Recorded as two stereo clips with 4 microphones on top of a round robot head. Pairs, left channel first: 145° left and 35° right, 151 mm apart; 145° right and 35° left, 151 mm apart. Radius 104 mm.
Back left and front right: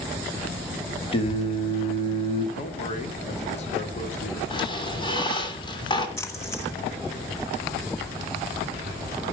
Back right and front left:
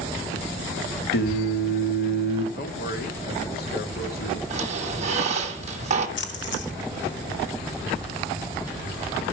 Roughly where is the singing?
Behind right.